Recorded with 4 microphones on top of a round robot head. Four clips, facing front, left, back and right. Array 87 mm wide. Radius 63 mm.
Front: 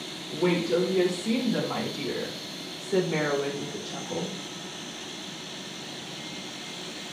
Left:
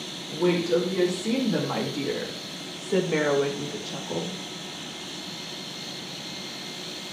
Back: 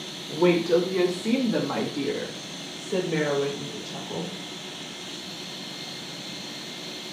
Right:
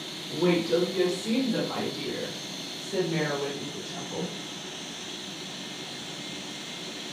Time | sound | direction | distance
0.3 | a woman speaking | 175° left | 2.5 m